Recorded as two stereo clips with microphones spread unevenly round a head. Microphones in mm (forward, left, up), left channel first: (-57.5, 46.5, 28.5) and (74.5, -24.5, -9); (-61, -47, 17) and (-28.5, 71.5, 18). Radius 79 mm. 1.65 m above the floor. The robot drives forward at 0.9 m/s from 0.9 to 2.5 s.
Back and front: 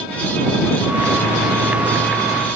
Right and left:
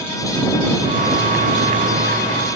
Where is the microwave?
No microwave in this recording.